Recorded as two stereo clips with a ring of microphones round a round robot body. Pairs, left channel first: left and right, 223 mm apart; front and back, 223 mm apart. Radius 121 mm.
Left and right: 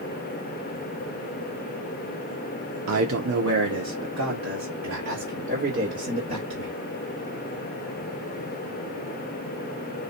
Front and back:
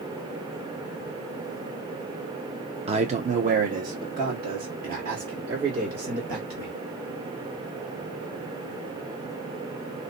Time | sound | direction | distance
2.9 | a man speaking | 115° right | 0.6 m